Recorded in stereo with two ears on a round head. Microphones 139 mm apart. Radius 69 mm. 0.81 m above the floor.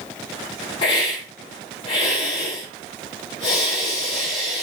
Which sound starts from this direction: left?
A hiss, at 0.8 s.